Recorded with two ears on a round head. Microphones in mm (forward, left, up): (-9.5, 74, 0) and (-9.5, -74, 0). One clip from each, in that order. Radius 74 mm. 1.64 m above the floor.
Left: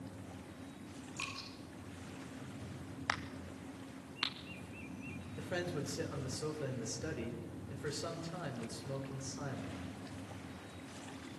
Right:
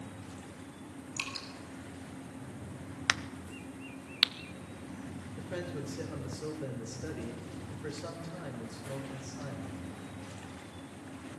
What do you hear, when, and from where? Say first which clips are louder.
1.2 s dripping: right 5 dB; 70° right (ahead or behind), 7 m
3.1 s a crack: right 7 dB; 55° right (ahead or behind), 1.1 m
5.4 s a man speaking: even; 15° left (ahead or behind), 5.5 m